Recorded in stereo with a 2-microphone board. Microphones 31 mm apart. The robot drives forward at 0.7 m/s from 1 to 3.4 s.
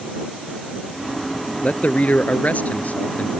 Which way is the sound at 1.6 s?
50° left (ahead or behind).